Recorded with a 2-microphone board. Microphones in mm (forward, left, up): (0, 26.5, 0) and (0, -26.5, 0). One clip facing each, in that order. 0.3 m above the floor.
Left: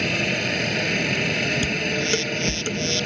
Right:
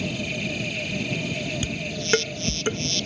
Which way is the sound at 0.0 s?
75° left (ahead or behind).